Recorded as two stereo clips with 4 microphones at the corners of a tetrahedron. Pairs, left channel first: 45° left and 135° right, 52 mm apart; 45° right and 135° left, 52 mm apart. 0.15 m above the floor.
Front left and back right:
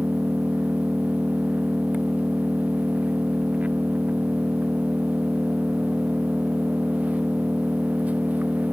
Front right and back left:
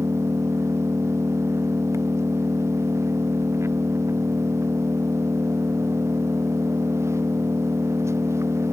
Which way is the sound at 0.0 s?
160° left.